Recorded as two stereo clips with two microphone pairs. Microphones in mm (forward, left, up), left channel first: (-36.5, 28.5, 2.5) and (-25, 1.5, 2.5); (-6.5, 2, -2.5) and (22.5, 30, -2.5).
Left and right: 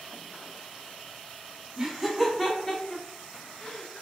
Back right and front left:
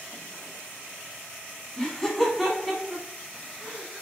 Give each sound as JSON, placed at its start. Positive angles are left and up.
{"t": 1.8, "sound": "laughter", "azimuth_deg": -100, "distance_m": 1.3}